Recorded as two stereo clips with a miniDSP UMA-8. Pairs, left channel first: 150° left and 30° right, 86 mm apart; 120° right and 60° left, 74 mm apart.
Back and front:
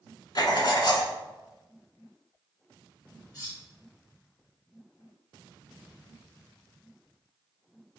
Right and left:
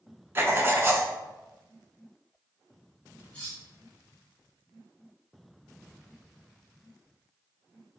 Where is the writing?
115° left, 0.6 m.